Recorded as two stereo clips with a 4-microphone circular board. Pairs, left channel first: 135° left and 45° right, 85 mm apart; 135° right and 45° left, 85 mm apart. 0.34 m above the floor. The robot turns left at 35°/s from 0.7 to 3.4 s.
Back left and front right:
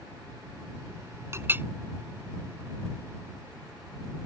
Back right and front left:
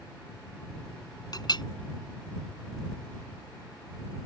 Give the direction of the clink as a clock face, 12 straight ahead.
3 o'clock.